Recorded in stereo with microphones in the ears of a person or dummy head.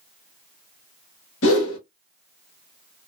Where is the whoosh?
55° left (ahead or behind), 1.0 m.